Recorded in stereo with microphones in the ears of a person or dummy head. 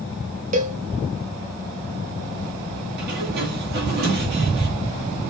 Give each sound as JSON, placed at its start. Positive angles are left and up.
{"t": 0.5, "sound": "a cowbell", "side_deg": -40, "distance_m": 0.6}
{"t": 3.0, "sound": "a sliding door", "side_deg": -60, "distance_m": 2.0}